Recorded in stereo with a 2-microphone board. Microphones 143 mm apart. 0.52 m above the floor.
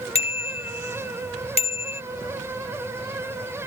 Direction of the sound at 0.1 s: 45° left (ahead or behind).